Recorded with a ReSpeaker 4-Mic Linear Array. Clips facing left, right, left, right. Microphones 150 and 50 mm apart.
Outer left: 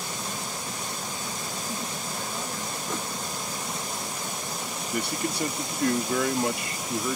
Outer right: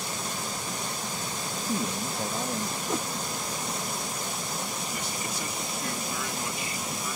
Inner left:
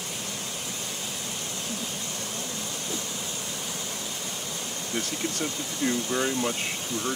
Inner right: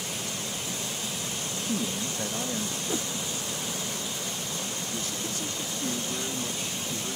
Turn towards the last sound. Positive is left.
turn(degrees=65)  # may be behind; listen again after turning